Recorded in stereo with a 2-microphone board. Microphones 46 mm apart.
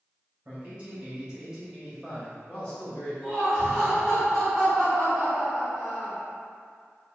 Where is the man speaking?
30° right (ahead or behind), 1.4 m; by 3.1 s 30° left (ahead or behind), 1.2 m.